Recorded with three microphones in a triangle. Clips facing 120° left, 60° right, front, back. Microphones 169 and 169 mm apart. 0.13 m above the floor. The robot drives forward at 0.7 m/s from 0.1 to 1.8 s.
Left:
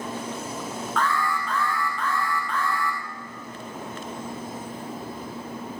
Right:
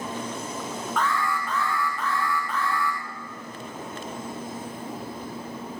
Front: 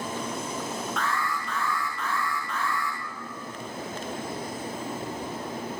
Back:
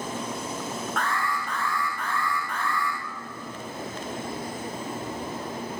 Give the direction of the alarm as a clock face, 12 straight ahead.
5 o'clock.